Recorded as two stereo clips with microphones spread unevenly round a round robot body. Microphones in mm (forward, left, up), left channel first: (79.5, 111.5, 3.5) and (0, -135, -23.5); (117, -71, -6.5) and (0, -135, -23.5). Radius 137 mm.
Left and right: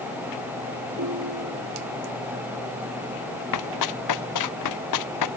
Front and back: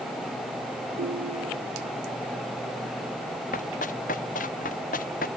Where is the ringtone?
150° right.